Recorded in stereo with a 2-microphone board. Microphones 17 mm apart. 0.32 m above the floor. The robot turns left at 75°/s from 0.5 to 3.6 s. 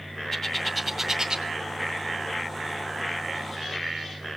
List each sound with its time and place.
0.3 s a bird: 25° left (ahead or behind), 2 m; by 1.4 s 40° right (ahead or behind), 2 m